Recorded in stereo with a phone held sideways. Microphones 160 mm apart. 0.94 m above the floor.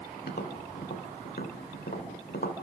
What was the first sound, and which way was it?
Tapping, 85° left.